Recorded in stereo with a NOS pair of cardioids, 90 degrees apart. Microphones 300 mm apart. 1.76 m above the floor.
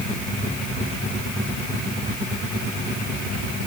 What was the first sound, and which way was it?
Only background noise.